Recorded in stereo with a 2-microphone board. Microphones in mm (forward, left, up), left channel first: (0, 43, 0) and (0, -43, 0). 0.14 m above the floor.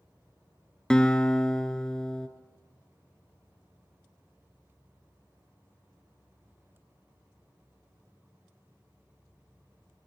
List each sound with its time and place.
0.9 s a guitar: 10° left (ahead or behind), 0.7 m